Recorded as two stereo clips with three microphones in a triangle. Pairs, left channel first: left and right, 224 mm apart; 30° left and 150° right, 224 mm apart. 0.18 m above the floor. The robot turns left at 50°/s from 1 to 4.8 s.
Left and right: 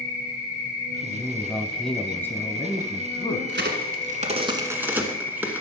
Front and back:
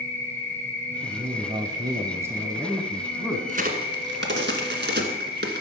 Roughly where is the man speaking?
Behind right.